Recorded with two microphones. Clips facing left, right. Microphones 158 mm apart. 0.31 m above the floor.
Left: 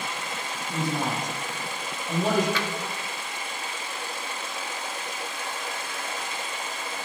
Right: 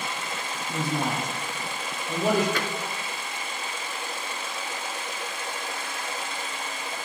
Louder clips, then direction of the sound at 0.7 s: Even; 5° right (ahead or behind).